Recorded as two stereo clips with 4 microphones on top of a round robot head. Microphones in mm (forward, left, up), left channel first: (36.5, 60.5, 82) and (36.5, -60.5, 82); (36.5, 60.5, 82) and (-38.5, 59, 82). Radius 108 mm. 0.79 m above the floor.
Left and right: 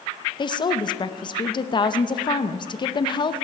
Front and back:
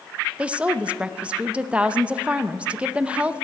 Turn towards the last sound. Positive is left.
turn(degrees=110)